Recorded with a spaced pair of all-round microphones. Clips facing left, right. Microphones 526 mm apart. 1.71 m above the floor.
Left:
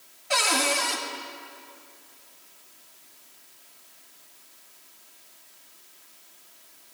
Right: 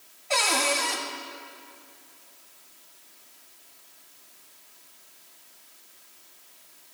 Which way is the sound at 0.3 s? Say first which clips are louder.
Even; 35° left (ahead or behind).